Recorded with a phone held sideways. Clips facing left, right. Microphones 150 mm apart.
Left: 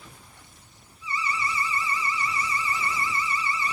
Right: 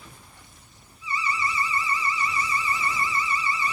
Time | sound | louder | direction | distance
1.0 | an alarm | right 2 dB | 20° right (ahead or behind) | 6 m